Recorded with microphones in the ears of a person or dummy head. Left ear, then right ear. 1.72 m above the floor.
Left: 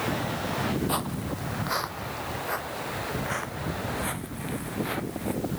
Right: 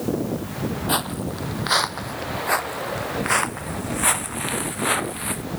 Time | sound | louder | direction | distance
0.9 | footsteps | right 5 dB | 20° right (ahead or behind) | ?